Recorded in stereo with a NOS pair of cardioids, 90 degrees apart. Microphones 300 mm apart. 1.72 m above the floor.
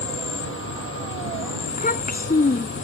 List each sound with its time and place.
0.0 s an insect: 40° left
1.7 s a child speaking: 30° left